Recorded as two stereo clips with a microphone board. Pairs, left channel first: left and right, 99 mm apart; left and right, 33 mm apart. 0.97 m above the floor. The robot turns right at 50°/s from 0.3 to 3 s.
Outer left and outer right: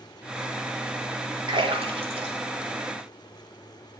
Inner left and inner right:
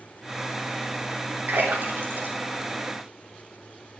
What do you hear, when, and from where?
1.5 s a splash: 55° right (ahead or behind), 3.5 m; by 3.6 s 45° right (ahead or behind), 3.5 m